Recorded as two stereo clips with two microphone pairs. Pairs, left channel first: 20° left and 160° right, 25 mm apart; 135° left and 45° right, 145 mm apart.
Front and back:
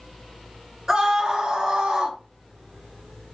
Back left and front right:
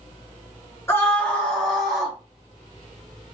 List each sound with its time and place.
0.9 s a scream: 170° left, 1.2 m; by 2.2 s 130° right, 1.7 m